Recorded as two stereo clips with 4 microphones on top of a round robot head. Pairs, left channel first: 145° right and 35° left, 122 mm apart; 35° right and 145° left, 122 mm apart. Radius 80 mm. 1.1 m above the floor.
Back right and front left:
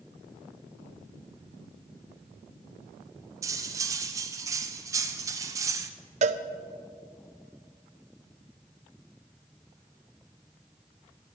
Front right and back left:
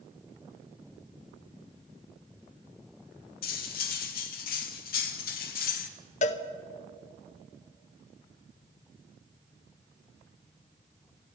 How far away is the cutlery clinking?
About 0.8 m.